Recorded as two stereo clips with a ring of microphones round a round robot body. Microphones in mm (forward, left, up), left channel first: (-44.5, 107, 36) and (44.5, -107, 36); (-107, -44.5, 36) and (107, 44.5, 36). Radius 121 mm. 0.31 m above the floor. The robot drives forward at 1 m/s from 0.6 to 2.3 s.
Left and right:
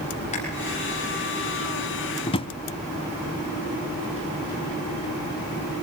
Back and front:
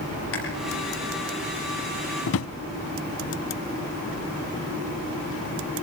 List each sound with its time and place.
0.3 s chewing: 175° left, 8.5 m
2.3 s a drawer: straight behind, 0.7 m